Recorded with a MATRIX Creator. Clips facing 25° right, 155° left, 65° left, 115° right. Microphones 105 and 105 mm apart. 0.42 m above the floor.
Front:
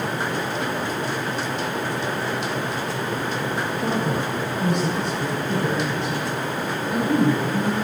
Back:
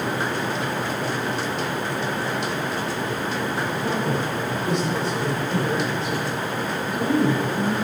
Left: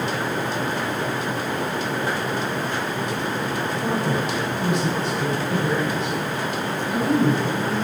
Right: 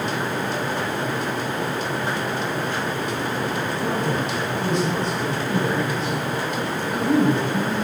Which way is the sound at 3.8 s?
5° right.